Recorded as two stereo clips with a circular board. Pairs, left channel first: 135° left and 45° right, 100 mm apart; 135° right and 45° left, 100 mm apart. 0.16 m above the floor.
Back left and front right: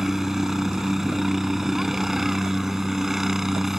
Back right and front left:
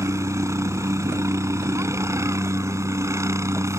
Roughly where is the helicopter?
Ahead left.